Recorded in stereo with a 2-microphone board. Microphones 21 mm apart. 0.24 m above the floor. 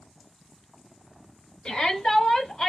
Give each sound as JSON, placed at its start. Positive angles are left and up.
{"t": 1.6, "sound": "a shout", "side_deg": 45, "distance_m": 1.7}